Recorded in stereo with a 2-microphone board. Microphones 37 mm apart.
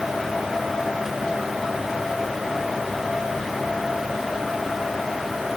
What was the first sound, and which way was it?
Only background noise.